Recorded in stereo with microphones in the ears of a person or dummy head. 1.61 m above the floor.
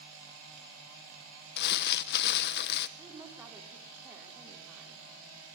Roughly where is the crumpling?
Left.